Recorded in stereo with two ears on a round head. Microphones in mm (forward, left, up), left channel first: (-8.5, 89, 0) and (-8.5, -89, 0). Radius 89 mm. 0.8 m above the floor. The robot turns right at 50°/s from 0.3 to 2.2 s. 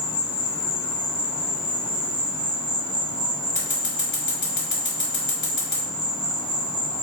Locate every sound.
0.0 s an insect: 115° left, 1.2 m; by 7.0 s 150° right, 1.2 m
3.5 s scissors: 45° left (ahead or behind), 1.5 m